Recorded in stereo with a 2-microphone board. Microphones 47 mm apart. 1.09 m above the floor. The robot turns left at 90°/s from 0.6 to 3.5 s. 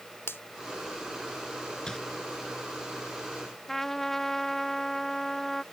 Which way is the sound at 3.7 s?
10° left (ahead or behind).